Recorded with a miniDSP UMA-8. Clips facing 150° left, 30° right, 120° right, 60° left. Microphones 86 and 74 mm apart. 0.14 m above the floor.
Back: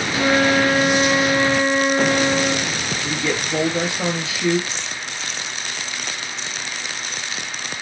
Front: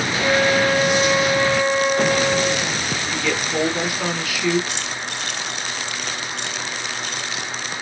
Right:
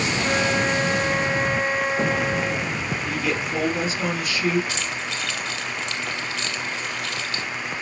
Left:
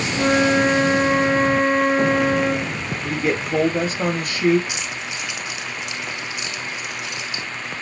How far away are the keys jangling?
About 2.0 m.